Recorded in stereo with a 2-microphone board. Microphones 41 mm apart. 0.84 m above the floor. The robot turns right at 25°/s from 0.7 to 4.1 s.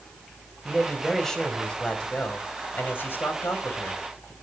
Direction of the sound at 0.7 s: 5° right.